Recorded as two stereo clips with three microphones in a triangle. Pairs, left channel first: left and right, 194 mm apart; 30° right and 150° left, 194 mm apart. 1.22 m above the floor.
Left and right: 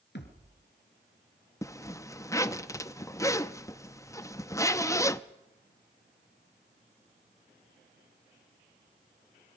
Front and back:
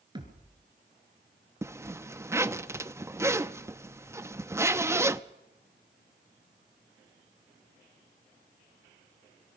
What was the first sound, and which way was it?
A thud, 85° left.